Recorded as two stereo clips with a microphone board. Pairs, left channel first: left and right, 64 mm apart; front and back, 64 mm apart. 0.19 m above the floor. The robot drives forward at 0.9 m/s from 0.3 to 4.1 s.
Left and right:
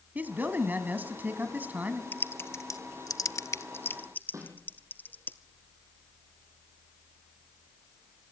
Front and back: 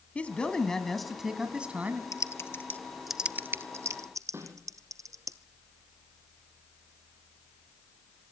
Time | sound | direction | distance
0.1 | a man speaking | 50° right | 1.9 m
2.1 | typing on a keyboard | 30° left | 1.0 m
4.3 | a snare drum | 130° right | 8 m